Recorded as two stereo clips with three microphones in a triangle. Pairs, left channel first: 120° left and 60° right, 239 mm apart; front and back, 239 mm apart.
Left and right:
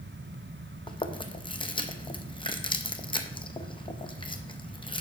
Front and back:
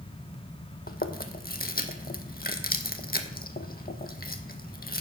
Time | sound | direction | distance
0.9 | chewing | 55° left | 0.8 m